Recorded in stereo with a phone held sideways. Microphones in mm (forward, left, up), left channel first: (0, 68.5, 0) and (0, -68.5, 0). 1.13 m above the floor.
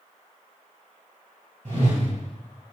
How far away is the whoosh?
About 2 m.